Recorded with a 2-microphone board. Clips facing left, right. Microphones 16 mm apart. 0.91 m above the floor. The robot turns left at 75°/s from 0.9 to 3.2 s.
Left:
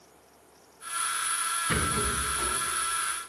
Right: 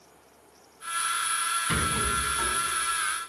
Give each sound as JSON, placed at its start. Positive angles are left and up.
{"t": 1.7, "sound": "a rattle", "side_deg": -10, "distance_m": 6.0}